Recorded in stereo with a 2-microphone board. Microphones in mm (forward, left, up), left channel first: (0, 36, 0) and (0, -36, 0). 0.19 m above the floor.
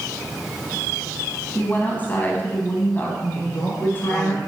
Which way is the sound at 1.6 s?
30° left (ahead or behind).